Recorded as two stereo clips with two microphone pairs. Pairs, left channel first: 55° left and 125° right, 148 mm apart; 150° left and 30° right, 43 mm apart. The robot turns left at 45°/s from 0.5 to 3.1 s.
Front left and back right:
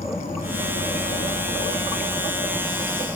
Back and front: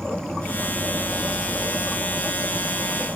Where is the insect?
70° left, 2.5 m; by 3.2 s 45° right, 2.5 m.